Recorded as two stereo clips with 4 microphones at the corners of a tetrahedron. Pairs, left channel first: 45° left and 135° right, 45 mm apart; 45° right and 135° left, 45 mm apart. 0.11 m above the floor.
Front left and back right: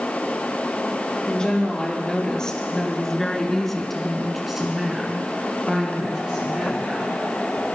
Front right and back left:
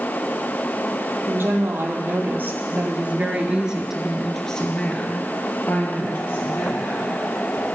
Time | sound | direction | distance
1.3 | a woman speaking | 115° left | 3 m